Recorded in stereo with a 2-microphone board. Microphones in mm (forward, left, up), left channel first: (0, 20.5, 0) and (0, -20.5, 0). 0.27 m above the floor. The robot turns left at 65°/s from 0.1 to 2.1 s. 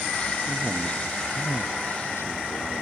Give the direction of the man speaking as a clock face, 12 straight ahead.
6 o'clock.